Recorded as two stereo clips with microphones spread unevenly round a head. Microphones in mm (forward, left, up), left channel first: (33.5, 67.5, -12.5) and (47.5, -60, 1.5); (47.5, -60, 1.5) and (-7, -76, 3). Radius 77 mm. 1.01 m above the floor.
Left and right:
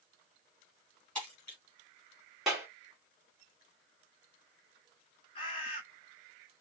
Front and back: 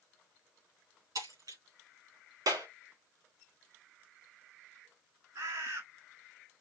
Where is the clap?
170° right, 2 m.